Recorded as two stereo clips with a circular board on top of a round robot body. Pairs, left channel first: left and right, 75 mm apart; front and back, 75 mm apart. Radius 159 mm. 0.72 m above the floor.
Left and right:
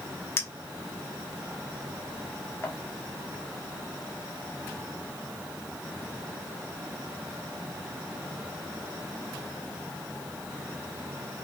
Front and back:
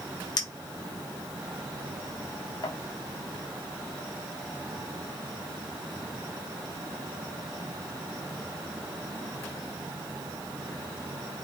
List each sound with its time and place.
0.4 s a clink: 30° left, 0.8 m